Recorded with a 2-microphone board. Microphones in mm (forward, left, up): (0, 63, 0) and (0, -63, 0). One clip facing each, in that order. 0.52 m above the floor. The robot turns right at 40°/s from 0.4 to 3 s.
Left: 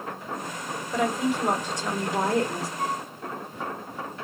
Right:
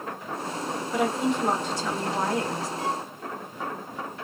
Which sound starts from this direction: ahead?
A woman speaking, at 0.9 s.